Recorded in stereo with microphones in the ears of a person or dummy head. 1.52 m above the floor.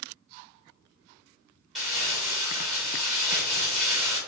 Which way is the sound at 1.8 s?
5° left (ahead or behind).